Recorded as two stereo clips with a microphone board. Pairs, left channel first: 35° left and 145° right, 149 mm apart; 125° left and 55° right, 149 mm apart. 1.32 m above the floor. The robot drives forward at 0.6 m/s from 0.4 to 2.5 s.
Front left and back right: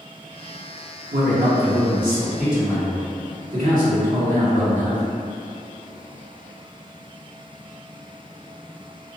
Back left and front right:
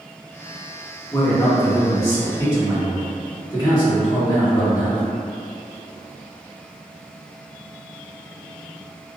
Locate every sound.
1.1 s a man speaking: 165° right, 0.9 m; by 5.0 s 170° right, 1.7 m